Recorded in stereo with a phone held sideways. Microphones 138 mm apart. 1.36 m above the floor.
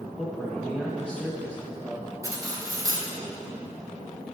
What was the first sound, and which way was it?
A man speaking, 10° left (ahead or behind).